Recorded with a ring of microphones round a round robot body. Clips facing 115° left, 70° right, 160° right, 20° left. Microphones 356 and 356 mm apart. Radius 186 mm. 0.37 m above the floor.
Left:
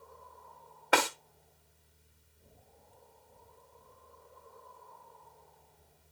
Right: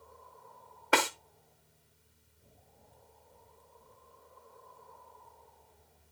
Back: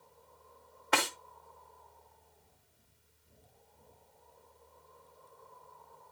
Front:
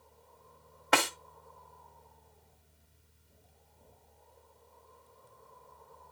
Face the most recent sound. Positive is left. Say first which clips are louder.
# even, front 3 dB
turn(degrees=20)